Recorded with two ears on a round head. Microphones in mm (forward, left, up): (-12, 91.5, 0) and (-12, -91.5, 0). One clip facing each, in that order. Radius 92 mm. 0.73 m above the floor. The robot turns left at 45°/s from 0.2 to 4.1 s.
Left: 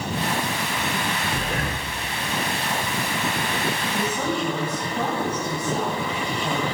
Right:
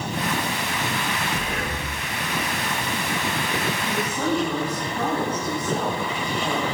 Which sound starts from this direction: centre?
A woman speaking, at 3.8 s.